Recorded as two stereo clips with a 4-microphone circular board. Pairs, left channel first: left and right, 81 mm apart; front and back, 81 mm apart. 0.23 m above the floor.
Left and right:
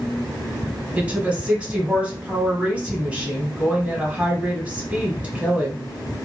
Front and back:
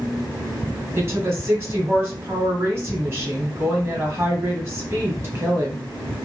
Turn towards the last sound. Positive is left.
turn(degrees=-150)